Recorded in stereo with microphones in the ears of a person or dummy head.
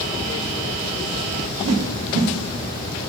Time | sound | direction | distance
1.6 | a whoosh | 80° right | 1.1 m